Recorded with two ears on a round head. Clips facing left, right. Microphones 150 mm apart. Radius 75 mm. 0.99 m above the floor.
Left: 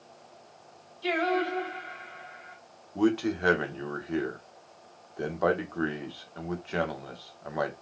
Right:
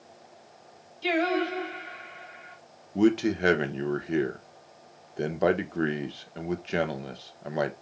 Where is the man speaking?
25° right (ahead or behind), 0.9 m.